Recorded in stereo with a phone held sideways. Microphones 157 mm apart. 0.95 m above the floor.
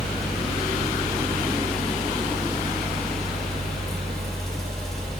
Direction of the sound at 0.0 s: 5° left (ahead or behind).